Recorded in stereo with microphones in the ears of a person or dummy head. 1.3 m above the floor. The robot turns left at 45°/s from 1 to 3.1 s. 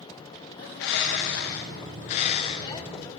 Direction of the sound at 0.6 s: 110° left.